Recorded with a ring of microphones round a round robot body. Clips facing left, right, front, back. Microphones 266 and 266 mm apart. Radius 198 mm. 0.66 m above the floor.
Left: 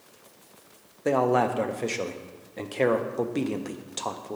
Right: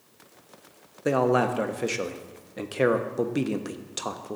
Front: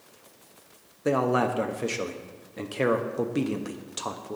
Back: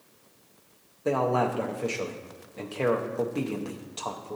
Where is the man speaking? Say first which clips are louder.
Right 1 dB, front 2 dB; 25° right, 0.5 m.